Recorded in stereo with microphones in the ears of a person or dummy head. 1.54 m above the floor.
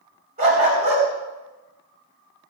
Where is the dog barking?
45° right (ahead or behind), 3 m.